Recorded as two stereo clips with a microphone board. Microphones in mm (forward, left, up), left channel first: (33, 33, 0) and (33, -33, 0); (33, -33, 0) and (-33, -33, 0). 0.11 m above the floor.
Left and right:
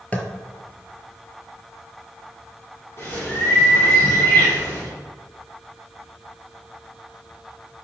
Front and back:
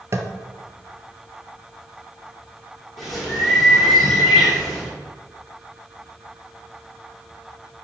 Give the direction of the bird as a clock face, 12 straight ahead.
9 o'clock.